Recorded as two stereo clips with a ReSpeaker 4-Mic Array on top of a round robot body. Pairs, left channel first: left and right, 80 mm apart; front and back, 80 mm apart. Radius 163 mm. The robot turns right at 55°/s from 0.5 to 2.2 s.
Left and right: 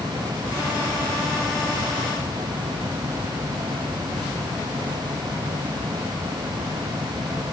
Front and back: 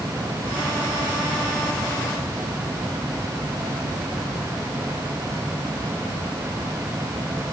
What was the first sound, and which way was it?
Only background noise.